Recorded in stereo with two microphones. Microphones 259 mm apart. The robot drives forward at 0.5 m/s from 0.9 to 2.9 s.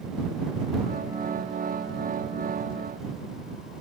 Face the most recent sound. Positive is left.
No sound to turn to.